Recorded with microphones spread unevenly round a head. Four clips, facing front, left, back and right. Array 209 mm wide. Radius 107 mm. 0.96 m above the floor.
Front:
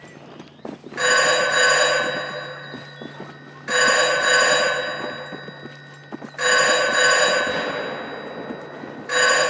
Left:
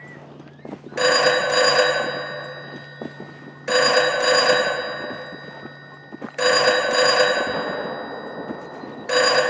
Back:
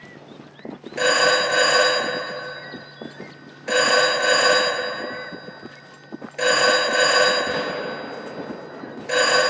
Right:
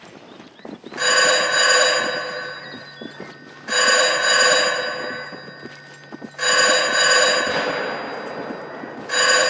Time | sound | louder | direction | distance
1.0 | a phone ringing | left 1 dB, even | 120° left | 0.8 m